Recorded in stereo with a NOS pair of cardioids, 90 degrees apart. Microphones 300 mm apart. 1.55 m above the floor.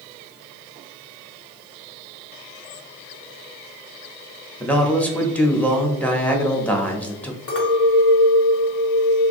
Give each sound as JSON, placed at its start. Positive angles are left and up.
{"t": 4.6, "sound": "a man speaking", "azimuth_deg": 5, "distance_m": 0.8}
{"t": 7.5, "sound": "a clink", "azimuth_deg": 55, "distance_m": 1.3}